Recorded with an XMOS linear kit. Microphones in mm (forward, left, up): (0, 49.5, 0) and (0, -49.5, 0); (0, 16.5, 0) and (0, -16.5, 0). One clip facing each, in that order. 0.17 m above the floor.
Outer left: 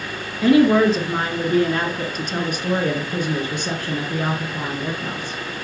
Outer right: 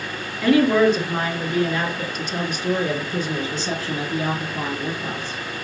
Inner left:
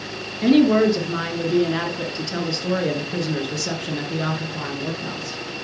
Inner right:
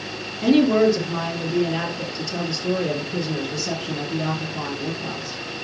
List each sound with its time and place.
0.4 s a woman speaking: 25° left (ahead or behind), 2.5 m; by 5.4 s 55° left (ahead or behind), 3 m